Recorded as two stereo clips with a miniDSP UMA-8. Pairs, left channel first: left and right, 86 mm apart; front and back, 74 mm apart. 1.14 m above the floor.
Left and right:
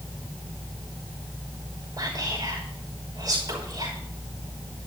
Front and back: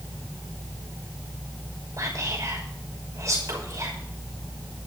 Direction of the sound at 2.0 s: 135° right.